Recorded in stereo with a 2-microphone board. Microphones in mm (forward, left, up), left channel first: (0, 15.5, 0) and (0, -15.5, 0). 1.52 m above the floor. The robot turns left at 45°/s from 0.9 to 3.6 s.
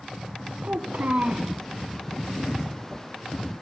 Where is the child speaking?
70° right (ahead or behind), 0.9 m; by 1.5 s 50° right (ahead or behind), 0.9 m.